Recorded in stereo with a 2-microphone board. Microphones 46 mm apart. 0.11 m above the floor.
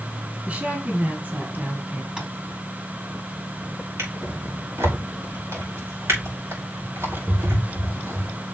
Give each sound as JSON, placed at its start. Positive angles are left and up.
{"t": 0.5, "sound": "a woman speaking", "side_deg": -35, "distance_m": 2.0}
{"t": 2.2, "sound": "tapping", "side_deg": -20, "distance_m": 3.0}
{"t": 4.0, "sound": "a drawer", "side_deg": -80, "distance_m": 5.0}